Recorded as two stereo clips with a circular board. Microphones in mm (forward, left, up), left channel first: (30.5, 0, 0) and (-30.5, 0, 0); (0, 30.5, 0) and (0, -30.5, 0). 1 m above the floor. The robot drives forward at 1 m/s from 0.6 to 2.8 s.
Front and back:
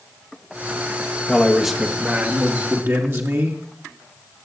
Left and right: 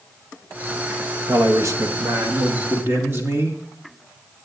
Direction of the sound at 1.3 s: 80° right.